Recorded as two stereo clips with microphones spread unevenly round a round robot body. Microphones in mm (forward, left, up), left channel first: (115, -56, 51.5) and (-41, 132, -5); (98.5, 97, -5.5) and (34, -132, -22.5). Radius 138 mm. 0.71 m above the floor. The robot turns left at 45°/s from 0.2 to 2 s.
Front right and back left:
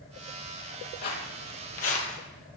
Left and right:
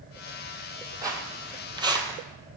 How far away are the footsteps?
About 1.2 m.